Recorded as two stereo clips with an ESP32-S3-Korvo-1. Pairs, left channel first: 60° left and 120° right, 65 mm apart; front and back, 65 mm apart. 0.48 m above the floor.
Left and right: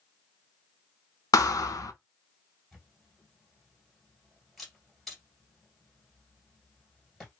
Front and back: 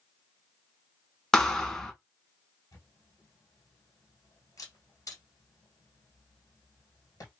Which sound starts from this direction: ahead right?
A camera shutter, at 2.7 s.